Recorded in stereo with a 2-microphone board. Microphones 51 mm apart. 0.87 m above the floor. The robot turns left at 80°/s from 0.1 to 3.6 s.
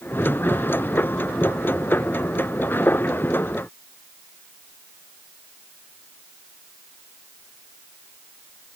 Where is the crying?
No crying in this recording.